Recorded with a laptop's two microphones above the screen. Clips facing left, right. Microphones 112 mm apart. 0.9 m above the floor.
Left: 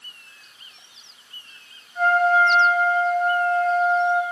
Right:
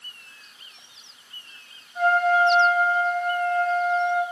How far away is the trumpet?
About 3 m.